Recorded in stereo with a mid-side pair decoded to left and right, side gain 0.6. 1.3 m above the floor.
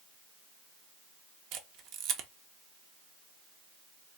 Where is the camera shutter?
70° right, 0.7 m.